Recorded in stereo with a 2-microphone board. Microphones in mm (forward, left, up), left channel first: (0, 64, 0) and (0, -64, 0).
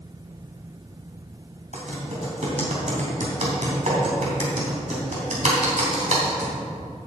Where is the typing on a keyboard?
65° right (ahead or behind), 3 m.